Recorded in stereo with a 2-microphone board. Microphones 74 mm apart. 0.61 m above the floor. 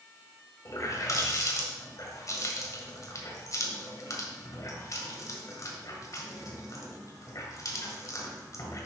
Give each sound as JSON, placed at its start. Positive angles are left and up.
{"t": 0.7, "sound": "a running tap", "side_deg": 50, "distance_m": 1.8}